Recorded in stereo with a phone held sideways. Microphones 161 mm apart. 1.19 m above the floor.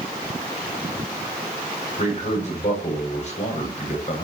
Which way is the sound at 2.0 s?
45° left (ahead or behind).